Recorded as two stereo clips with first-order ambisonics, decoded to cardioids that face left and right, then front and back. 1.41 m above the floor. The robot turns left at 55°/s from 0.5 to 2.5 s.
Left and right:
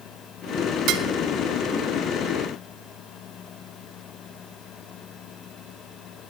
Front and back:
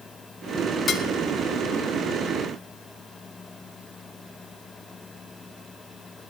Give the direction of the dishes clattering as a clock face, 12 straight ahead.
2 o'clock.